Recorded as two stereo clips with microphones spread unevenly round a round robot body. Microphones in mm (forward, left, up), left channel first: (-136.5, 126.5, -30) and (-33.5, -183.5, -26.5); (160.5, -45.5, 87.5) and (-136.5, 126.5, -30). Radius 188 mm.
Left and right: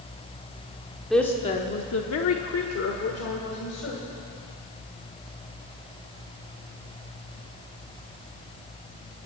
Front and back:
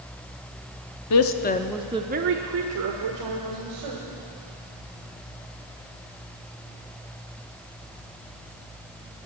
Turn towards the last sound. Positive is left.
turn(degrees=155)